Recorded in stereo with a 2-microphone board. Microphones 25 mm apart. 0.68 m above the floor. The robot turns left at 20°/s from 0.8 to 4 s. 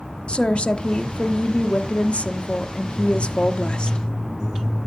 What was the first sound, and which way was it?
A woman speaking, 115° left.